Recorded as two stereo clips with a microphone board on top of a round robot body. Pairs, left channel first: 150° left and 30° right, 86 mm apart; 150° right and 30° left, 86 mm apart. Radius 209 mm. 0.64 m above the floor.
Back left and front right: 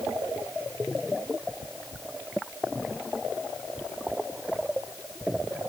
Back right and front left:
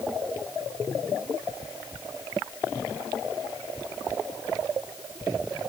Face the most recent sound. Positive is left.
No sound to turn to.